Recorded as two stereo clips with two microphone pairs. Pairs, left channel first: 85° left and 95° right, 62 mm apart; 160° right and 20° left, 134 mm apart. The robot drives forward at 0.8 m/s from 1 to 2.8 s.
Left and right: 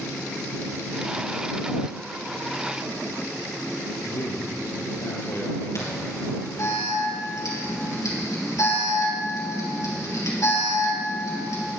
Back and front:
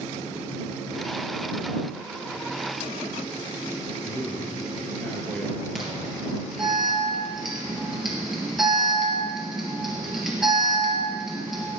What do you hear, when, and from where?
4.0 s a man speaking: 115° left, 2.5 m
5.8 s an alarm: 105° left, 4.5 m